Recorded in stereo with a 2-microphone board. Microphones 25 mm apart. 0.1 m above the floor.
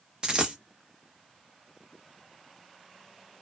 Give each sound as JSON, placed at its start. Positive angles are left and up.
{"t": 0.2, "sound": "a dropped coin", "side_deg": -30, "distance_m": 1.1}